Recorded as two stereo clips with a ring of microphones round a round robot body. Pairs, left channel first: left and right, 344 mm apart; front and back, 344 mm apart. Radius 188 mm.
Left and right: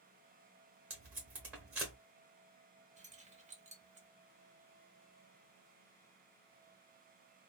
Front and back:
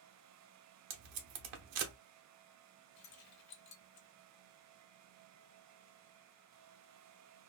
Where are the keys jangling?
20° right, 1.0 m.